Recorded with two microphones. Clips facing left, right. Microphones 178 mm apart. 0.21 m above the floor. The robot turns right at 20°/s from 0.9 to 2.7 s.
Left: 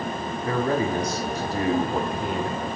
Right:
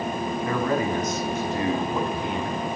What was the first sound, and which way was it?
A man speaking, 50° left.